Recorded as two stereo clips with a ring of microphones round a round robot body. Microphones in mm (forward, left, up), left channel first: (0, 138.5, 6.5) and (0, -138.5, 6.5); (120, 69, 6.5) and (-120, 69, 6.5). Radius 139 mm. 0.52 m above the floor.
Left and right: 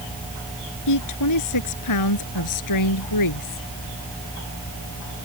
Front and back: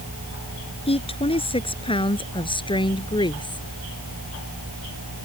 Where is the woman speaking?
65° left; by 3.7 s 70° left.